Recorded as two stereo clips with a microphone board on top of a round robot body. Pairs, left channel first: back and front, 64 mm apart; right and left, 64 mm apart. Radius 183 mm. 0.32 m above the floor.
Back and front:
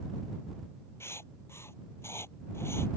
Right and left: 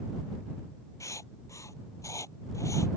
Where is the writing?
130° right.